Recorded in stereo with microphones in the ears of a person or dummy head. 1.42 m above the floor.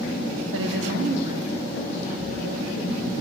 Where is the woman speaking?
85° right, 0.8 m; by 3.1 s centre (ahead or behind), 4 m.